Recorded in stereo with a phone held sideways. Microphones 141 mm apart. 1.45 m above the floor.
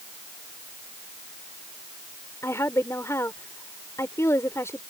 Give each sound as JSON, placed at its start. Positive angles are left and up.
{"t": 2.4, "sound": "a woman speaking", "side_deg": 20}